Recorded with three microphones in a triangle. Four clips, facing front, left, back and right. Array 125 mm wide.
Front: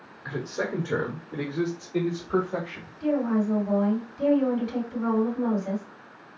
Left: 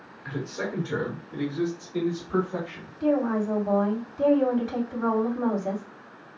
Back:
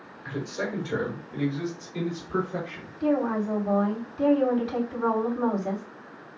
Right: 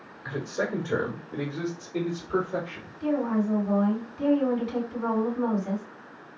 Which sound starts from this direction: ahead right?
A man speaking, at 0.2 s.